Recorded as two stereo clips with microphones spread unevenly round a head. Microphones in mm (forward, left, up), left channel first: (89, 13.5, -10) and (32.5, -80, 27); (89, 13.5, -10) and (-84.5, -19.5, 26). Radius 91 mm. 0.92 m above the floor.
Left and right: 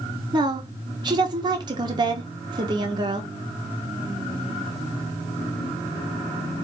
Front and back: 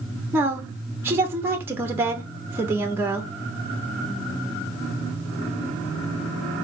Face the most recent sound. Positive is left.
turn(degrees=-80)